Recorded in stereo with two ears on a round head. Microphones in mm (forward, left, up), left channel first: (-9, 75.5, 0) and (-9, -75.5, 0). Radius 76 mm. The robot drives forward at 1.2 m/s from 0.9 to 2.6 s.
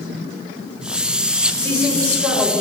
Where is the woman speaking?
10° left (ahead or behind), 5.5 m; by 2.6 s 15° left (ahead or behind), 4 m.